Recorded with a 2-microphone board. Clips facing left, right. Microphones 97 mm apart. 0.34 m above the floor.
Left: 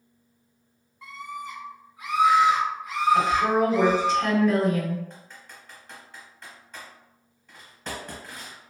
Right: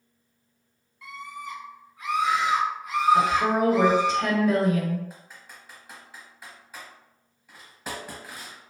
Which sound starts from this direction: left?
A scream, at 1.0 s.